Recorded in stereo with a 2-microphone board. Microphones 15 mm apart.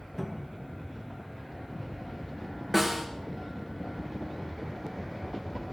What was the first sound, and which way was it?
A cupboard door, 15° left (ahead or behind).